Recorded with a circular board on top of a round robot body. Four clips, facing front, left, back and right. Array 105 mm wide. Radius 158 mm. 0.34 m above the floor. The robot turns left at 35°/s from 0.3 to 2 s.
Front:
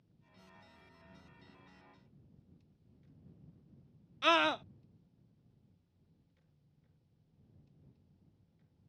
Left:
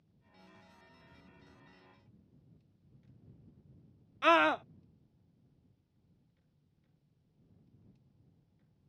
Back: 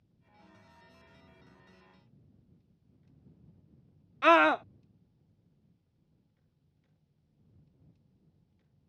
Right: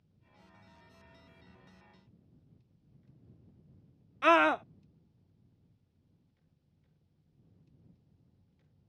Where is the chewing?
No chewing in this recording.